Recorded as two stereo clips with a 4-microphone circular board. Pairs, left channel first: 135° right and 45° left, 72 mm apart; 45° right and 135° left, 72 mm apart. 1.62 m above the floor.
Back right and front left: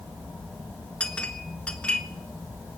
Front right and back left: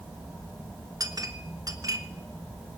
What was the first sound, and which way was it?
A clink, 155° left.